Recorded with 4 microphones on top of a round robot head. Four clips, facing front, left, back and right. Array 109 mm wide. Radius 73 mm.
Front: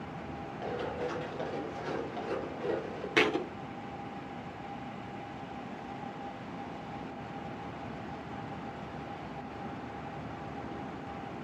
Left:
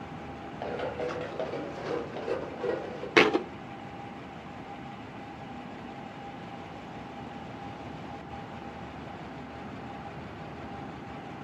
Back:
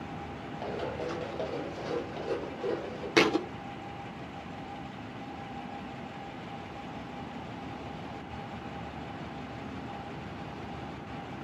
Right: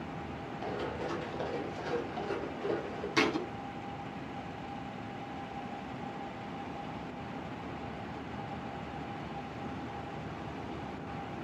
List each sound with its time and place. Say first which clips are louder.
0.6 s running footsteps: left 4 dB, back 1 dB; 105° left, 4.5 m; by 3.1 s 95° left, 5.5 m
3.2 s a thud: left 8 dB, back 4 dB; 105° left, 0.7 m